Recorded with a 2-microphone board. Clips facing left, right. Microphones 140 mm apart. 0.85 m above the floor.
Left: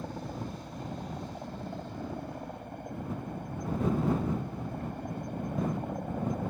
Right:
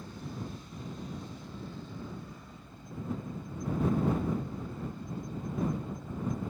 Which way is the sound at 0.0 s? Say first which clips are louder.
Left 4 dB; 60° left (ahead or behind).